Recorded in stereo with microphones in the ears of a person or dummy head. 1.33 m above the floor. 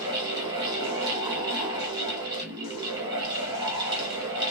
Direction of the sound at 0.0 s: 35° right (ahead or behind).